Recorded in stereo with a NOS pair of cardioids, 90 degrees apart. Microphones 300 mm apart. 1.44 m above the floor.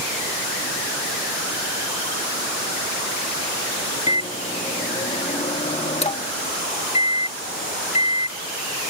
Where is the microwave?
20° left.